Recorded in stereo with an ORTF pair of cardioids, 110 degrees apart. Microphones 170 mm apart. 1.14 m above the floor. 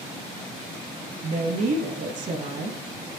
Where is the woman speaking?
45° right, 1.0 m.